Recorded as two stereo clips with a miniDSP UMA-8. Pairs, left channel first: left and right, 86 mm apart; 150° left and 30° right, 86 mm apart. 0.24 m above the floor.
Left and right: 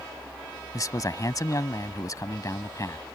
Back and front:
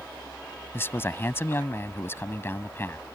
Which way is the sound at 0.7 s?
100° left.